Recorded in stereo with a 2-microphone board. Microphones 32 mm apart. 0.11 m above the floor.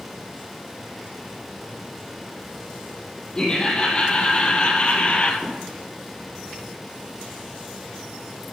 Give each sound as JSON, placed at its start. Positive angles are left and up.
{"t": 3.4, "sound": "laughter", "side_deg": 25, "distance_m": 5.0}
{"t": 5.4, "sound": "a gunshot", "side_deg": -10, "distance_m": 4.5}